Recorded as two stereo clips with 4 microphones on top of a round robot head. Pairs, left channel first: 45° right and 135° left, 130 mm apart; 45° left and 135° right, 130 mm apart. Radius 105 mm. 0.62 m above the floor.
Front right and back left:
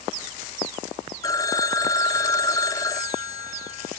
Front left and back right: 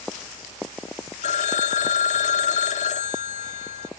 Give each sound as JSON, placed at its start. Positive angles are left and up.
{"t": 1.2, "sound": "a phone ringing", "azimuth_deg": 15, "distance_m": 0.9}